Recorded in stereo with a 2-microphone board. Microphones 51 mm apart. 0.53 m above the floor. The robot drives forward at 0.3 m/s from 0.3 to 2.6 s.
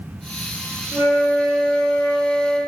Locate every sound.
0.9 s a flute: 45° right (ahead or behind), 0.9 m; by 2.6 s 35° right (ahead or behind), 1.1 m